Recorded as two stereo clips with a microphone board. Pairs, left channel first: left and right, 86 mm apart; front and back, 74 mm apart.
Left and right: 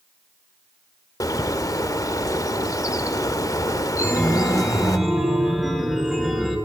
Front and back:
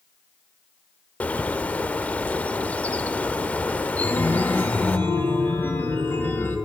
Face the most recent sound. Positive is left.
turn(degrees=-5)